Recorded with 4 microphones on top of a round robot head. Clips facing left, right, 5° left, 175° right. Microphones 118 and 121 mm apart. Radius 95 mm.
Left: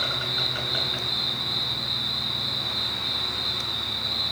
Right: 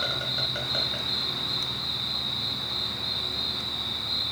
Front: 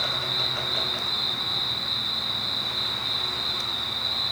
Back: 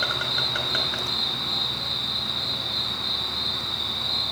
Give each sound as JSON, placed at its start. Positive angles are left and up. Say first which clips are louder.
{"t": 0.0, "sound": "an insect", "louder": "left 1 dB, back 2 dB", "azimuth_deg": -150, "distance_m": 5.0}